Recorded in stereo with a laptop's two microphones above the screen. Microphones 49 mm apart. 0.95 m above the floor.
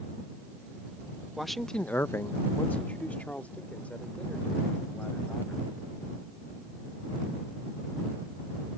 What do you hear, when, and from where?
1.4 s a man speaking: 5° right (ahead or behind); by 5.7 s 25° left (ahead or behind)